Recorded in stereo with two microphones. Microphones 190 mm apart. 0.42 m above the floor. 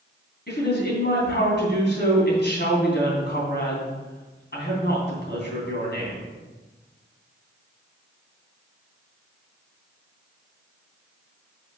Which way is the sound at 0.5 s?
60° left (ahead or behind).